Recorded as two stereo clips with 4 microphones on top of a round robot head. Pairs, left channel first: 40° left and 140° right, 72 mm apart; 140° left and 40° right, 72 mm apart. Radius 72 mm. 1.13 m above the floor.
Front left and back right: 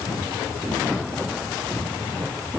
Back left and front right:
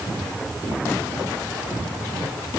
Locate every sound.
Only background noise.